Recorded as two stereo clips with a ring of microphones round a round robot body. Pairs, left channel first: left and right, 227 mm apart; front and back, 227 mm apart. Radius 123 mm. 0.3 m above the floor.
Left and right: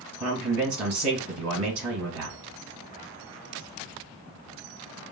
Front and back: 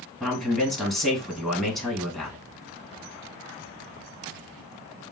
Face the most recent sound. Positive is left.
turn(degrees=-90)